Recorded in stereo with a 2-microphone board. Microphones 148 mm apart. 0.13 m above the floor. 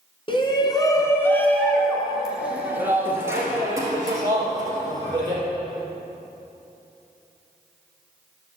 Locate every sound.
0.3 s a shout: 35° left (ahead or behind), 1.2 m; by 5.4 s 25° right (ahead or behind), 3 m